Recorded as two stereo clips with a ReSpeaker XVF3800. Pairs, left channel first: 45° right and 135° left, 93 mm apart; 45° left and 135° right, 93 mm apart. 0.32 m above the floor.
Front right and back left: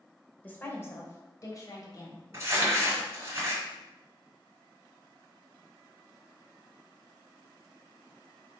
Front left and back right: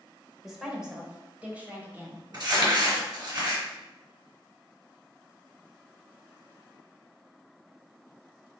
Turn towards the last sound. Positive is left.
turn(degrees=-170)